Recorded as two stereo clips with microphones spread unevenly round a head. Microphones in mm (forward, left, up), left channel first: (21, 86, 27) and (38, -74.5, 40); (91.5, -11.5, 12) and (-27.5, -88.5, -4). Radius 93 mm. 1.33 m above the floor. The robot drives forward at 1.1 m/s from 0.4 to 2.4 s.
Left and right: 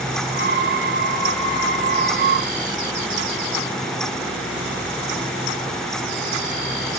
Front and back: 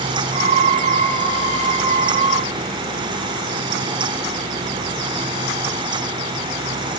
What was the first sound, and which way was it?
Only background noise.